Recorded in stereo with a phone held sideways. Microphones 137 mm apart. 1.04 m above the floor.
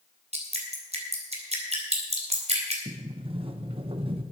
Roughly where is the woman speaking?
I don't hear a woman speaking.